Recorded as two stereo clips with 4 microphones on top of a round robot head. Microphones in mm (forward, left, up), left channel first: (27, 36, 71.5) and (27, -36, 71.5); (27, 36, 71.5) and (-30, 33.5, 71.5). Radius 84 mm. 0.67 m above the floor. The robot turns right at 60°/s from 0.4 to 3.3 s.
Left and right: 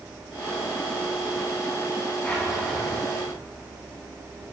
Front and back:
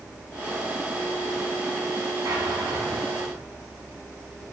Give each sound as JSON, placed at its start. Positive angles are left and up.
{"t": 2.2, "sound": "a drawer", "azimuth_deg": 165, "distance_m": 2.0}